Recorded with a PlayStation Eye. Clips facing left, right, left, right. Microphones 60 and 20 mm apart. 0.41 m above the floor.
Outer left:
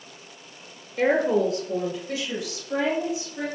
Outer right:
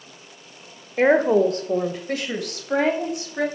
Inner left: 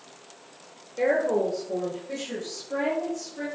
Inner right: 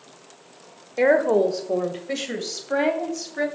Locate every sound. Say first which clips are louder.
1.0 s a woman speaking: outer right 4 dB, inner right 5 dB; 40° right (ahead or behind), 1.0 m; by 3.5 s 60° right (ahead or behind), 2.5 m